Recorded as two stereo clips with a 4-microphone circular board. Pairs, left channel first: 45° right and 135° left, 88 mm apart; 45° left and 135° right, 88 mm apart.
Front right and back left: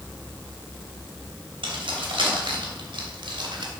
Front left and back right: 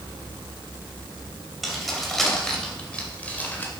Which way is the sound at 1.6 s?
135° left.